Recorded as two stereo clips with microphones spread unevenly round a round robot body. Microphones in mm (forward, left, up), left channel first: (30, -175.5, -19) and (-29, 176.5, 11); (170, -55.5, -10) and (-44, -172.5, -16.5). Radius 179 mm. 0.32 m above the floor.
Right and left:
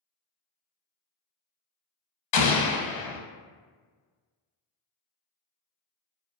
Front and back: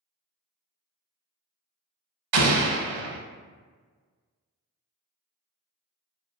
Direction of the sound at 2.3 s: 125° right.